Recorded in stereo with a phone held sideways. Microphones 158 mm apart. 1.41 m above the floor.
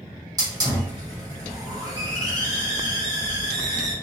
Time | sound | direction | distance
0.4 | a hiss | 25° right (ahead or behind) | 1.3 m